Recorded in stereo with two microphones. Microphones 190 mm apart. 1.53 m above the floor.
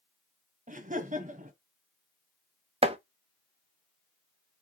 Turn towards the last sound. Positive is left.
turn(degrees=-30)  # may be behind; listen again after turning